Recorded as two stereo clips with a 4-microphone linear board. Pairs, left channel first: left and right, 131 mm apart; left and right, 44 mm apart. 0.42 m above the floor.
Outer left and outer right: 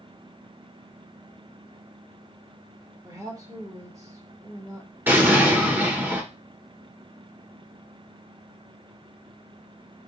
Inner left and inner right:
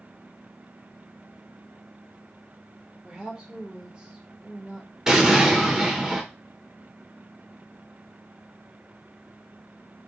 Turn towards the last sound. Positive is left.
turn(degrees=-15)  # may be behind; listen again after turning